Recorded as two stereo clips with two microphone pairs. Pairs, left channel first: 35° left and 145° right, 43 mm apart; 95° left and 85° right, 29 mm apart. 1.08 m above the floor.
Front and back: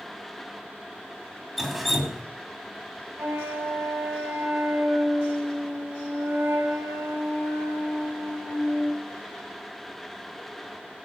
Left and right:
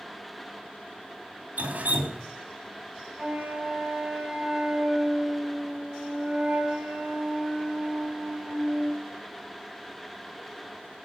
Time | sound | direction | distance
1.6 | dripping | 55° right | 2.5 m
3.2 | a flute | 150° right | 4.5 m